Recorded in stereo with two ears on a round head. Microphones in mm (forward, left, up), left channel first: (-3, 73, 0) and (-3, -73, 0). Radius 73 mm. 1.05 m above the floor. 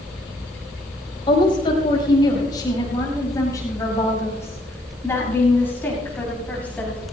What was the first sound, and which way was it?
A woman speaking, 30° left (ahead or behind).